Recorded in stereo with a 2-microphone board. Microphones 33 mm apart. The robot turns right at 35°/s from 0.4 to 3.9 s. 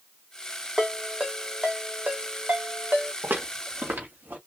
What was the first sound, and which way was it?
A ringtone, 5° right (ahead or behind).